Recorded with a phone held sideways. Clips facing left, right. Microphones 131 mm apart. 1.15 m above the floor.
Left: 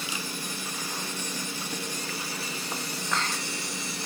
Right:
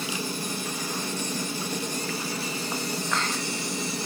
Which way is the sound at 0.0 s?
40° right (ahead or behind).